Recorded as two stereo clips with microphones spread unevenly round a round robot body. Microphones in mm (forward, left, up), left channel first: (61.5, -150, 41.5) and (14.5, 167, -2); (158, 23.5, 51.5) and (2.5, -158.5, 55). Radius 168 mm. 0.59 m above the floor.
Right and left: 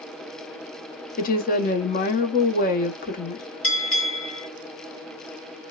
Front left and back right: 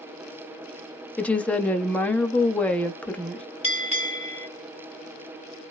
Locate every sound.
1.2 s a woman speaking: 30° right, 0.7 m
3.6 s a bell: 5° right, 1.8 m